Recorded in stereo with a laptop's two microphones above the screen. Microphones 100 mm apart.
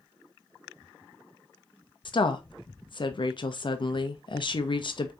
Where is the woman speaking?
50° left (ahead or behind), 0.5 m.